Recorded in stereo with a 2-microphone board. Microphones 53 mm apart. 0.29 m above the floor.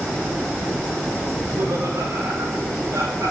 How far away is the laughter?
About 9.5 m.